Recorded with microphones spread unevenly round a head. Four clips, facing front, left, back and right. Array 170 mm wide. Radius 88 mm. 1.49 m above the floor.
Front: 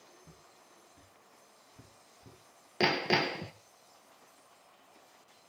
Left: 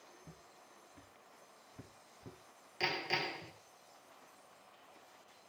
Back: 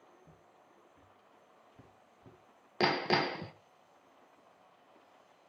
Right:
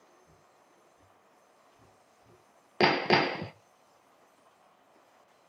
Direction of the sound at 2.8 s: 80° right.